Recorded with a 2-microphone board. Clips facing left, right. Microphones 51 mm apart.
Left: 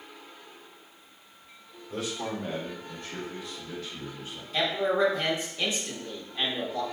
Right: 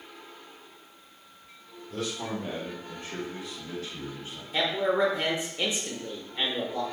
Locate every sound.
1.9 s a man speaking: 20° left (ahead or behind), 0.9 m; by 4.4 s 60° right (ahead or behind), 1.8 m
4.5 s a man speaking: 25° right (ahead or behind), 0.9 m